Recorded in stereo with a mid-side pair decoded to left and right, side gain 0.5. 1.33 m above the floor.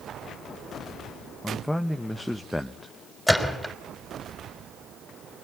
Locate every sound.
1.4 s a man speaking: 10° left, 1.1 m
3.3 s a gunshot: straight ahead, 4.5 m